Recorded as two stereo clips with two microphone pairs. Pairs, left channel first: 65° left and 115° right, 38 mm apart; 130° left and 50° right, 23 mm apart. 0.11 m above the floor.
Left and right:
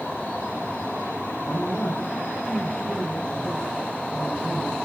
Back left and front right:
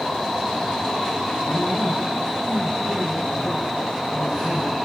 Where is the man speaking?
105° left, 6.5 m.